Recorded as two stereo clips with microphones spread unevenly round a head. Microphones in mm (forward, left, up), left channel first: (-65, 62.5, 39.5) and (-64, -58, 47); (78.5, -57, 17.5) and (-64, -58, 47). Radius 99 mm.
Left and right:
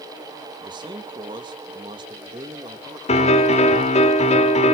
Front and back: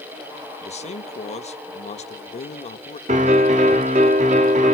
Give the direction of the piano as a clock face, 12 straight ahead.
8 o'clock.